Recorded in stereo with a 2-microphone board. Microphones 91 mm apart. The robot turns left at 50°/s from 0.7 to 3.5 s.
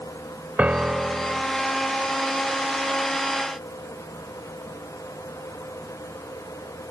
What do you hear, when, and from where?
0.6 s a piano: 160° right, 0.6 m; by 1.4 s 160° left, 0.6 m